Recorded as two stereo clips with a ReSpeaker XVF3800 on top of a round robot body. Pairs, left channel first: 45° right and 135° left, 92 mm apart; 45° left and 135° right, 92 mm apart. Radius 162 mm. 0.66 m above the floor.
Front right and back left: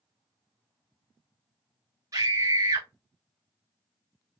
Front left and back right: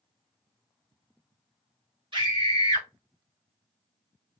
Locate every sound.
2.1 s a scream: 170° right, 2.5 m